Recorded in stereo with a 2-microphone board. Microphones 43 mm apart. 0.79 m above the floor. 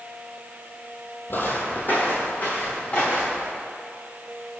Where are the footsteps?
50° left (ahead or behind), 1.2 m; by 3.5 s 35° left (ahead or behind), 4 m.